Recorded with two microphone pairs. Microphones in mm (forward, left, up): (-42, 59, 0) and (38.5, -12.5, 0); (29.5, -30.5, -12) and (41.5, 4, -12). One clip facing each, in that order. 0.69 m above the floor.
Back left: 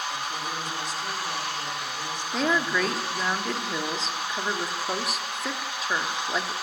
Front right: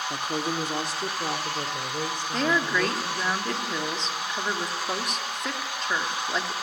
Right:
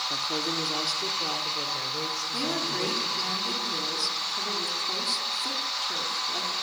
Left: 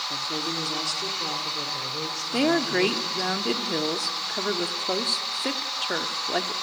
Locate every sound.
0.1 s a woman speaking: 35° right, 1.5 m; by 3.3 s 25° right, 3 m
2.3 s a woman speaking: 55° left, 1.4 m